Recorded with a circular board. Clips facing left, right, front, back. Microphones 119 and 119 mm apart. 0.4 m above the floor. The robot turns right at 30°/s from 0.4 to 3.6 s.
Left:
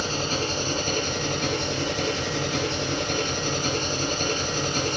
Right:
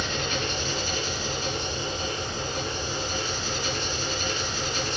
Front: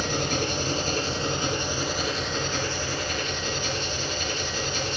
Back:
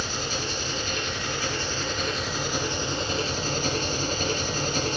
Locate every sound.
0.0 s an engine running: 35° left, 2 m; by 5.0 s 130° left, 2 m